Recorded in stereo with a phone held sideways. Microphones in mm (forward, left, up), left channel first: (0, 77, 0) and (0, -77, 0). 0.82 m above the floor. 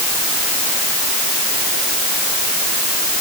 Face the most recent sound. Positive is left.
No sound to turn to.